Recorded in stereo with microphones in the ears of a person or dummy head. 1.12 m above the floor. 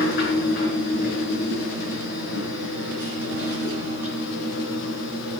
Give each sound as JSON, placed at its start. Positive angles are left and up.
{"t": 0.0, "sound": "a machine running", "side_deg": 55, "distance_m": 4.5}